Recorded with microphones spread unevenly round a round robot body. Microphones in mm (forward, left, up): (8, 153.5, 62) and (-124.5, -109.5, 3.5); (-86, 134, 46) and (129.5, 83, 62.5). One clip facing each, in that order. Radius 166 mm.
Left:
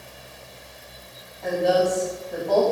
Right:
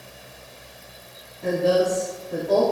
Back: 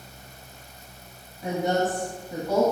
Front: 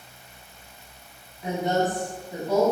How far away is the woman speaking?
About 3.5 m.